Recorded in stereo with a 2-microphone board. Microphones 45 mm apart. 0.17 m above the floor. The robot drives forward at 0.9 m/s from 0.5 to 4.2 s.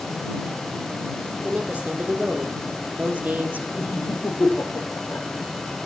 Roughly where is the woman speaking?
Right.